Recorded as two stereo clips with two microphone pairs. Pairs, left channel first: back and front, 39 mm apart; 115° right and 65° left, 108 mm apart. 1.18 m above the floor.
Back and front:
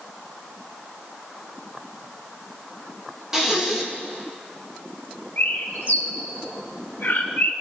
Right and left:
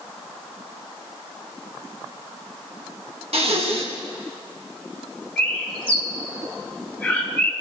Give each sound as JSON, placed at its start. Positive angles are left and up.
{"t": 3.3, "sound": "breathing", "azimuth_deg": 75, "distance_m": 1.5}
{"t": 5.4, "sound": "a bird", "azimuth_deg": 165, "distance_m": 1.4}